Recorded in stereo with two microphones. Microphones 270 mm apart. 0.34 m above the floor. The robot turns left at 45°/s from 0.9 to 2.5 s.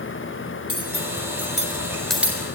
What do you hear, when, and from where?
0.7 s cutlery clinking: 55° left (ahead or behind), 3.5 m; by 2.4 s 10° right (ahead or behind), 3.5 m